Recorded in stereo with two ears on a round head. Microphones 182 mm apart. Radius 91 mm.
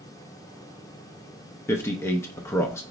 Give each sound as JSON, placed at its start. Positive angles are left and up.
{"t": 1.7, "sound": "a man speaking", "side_deg": 15, "distance_m": 0.5}